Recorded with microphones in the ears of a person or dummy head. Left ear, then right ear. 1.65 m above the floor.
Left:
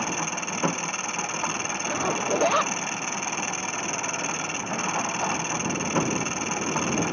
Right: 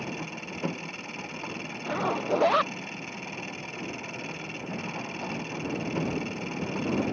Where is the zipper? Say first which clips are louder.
Even; centre (ahead or behind).